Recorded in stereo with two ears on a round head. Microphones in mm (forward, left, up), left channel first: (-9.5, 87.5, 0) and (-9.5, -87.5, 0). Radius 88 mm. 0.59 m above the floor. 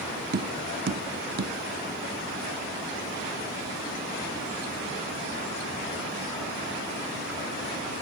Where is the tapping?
55° right (ahead or behind).